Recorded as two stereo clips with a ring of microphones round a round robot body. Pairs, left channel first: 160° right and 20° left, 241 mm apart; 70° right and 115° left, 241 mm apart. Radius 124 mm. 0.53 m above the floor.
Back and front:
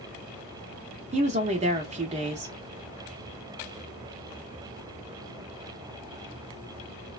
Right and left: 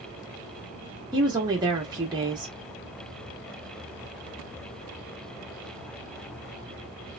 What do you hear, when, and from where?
1.1 s a woman speaking: 55° left, 0.8 m